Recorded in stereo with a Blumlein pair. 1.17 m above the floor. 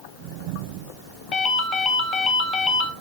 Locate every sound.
1.3 s a ringtone: 25° left, 0.5 m